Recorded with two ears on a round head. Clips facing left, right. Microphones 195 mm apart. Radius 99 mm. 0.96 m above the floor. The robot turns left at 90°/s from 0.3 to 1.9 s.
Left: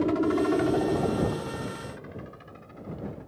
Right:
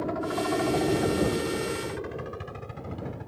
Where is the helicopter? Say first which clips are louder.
Left 6 dB; 40° left (ahead or behind); by 3.3 s 65° right (ahead or behind).